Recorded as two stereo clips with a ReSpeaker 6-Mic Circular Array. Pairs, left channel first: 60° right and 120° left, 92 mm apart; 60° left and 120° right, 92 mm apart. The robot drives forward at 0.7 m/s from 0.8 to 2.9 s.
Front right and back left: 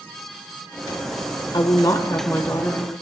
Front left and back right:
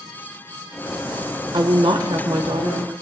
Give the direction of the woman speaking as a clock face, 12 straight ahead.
3 o'clock.